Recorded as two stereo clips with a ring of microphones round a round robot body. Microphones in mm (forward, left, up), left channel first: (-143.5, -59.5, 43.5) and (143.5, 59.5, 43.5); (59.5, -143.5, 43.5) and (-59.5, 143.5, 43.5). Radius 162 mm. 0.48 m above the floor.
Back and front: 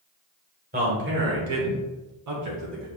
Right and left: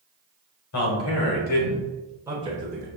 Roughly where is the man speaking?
Ahead right.